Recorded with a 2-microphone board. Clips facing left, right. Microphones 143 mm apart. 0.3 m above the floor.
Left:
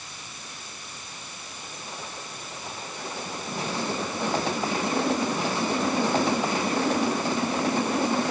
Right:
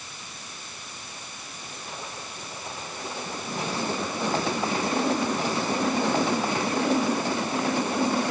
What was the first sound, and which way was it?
Only background noise.